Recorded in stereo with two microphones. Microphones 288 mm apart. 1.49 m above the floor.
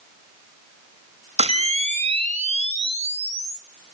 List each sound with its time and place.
1.4 s a camera shutter: 20° right (ahead or behind), 1.9 m